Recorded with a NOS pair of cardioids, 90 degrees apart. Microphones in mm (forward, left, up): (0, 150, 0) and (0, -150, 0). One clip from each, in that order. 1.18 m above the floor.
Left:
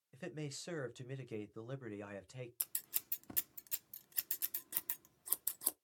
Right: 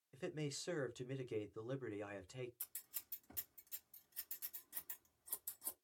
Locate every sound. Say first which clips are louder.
0.1 s a man speaking: right 1 dB; 5° left, 0.6 m
2.6 s scissors: left 9 dB; 60° left, 0.5 m